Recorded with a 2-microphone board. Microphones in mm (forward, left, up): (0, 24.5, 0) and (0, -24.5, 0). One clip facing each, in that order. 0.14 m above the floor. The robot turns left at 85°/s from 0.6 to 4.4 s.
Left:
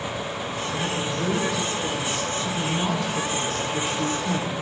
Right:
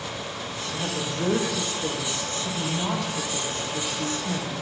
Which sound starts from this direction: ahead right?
A woman speaking, at 0.7 s.